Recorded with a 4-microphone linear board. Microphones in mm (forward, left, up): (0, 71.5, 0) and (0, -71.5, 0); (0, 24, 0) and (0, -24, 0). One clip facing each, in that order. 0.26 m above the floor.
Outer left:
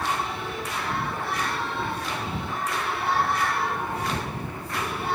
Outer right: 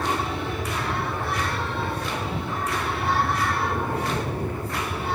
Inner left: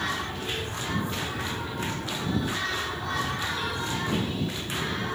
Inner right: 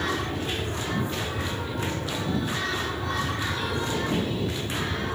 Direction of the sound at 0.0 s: 40° right (ahead or behind).